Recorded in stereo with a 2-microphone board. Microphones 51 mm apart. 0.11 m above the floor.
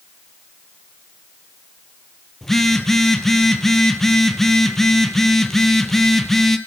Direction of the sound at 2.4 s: 10° left (ahead or behind).